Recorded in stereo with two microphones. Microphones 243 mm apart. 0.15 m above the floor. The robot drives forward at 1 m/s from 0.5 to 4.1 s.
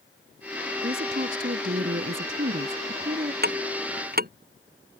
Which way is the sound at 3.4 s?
40° right (ahead or behind).